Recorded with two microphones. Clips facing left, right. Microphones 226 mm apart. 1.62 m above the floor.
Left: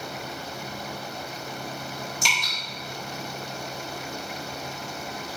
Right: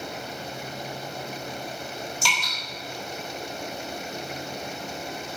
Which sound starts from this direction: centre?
Dripping, at 2.2 s.